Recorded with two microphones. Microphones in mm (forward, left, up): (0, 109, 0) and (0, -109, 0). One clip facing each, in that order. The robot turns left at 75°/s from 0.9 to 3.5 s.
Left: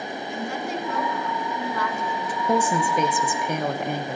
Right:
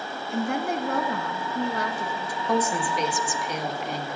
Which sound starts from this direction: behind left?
A woman speaking, at 2.5 s.